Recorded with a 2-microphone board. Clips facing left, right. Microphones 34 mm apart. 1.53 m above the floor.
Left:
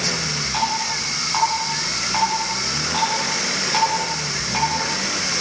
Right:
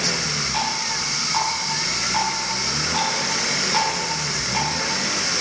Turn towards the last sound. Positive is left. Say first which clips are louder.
# left 5 dB
turn(degrees=15)  # may be behind; listen again after turning